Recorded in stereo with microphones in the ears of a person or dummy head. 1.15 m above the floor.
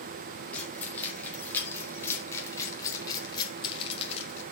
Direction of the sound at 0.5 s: 10° left (ahead or behind).